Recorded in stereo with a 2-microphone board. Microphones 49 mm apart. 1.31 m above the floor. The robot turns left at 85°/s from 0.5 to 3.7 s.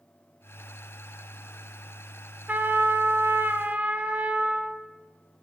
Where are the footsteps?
No footsteps in this recording.